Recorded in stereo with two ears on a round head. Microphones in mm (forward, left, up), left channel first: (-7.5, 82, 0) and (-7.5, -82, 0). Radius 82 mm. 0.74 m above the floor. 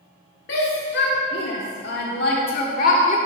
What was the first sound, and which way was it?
A shout, 65° left (ahead or behind).